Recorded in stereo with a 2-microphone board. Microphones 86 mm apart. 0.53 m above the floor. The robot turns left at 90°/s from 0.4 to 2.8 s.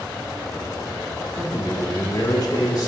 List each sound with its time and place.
1.3 s a man speaking: 165° right, 1.4 m; by 2.9 s 60° left, 1.4 m